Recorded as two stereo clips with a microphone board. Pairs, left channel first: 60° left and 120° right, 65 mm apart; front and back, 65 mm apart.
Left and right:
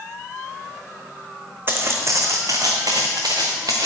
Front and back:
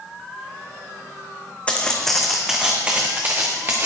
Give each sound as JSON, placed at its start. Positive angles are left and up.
{"t": 1.7, "sound": "footsteps", "azimuth_deg": -70, "distance_m": 1.2}